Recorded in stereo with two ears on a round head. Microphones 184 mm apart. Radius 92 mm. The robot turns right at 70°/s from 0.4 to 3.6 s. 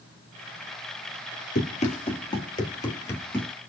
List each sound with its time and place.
1.6 s running footsteps: 40° left (ahead or behind), 1.5 m; by 3.5 s 5° left (ahead or behind), 1.4 m